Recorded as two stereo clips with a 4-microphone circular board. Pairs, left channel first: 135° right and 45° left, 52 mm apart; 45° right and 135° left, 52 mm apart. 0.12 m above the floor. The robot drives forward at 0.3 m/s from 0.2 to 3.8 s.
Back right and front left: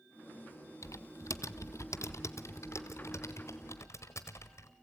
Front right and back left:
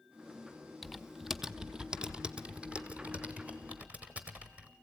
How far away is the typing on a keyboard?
About 0.6 m.